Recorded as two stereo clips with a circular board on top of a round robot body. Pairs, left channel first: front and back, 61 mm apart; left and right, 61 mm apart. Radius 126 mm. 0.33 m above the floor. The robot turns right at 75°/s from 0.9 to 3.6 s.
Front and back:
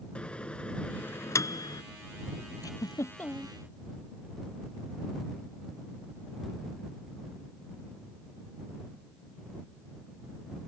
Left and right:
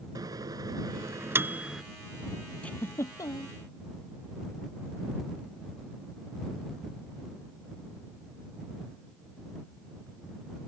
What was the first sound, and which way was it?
A microwave, 70° right.